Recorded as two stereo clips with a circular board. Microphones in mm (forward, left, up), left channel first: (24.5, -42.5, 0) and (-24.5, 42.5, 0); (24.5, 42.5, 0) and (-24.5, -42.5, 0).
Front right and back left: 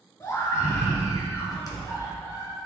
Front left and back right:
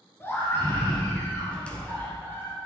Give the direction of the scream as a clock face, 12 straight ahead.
12 o'clock.